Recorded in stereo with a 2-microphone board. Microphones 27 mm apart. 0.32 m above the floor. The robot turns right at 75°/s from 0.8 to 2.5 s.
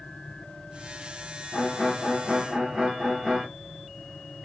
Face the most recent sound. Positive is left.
turn(degrees=-160)